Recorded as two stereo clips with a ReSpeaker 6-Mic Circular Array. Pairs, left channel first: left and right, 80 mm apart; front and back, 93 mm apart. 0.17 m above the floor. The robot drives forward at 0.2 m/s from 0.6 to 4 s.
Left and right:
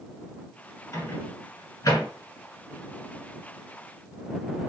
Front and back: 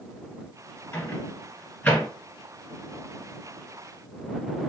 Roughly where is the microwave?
Ahead left.